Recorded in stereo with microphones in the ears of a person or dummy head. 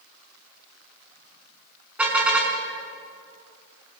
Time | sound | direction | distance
2.0 | a car horn | 5° right (ahead or behind) | 5 m